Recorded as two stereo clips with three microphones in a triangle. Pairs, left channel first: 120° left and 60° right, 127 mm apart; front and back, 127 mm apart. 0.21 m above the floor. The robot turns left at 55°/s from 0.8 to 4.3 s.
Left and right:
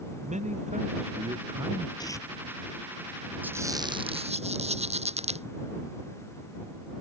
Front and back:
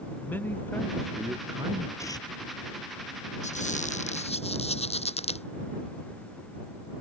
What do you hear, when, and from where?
0.2 s a man speaking: 75° right; by 1.9 s 135° right
2.0 s tearing paper: 65° left; by 2.3 s 45° left
3.4 s a squeak: 15° left; by 5.5 s 30° right